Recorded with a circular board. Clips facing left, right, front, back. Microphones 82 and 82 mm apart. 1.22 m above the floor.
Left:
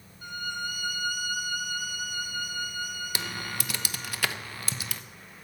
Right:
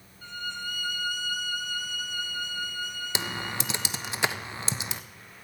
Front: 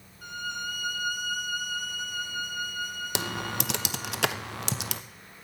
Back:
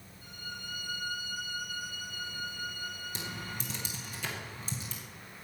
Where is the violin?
15° left, 0.9 m.